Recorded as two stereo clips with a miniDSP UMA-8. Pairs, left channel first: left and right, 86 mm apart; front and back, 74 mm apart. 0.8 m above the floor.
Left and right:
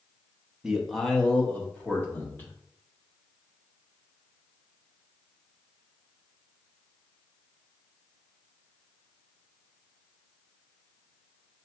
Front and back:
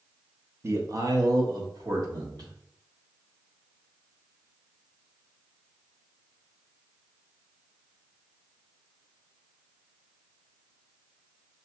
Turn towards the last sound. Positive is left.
turn(degrees=155)